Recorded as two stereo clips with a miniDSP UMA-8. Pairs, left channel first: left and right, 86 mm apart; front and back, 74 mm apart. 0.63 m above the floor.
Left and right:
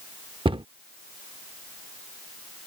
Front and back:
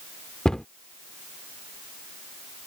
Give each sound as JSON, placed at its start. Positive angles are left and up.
{"t": 0.5, "sound": "a cupboard door", "azimuth_deg": -80}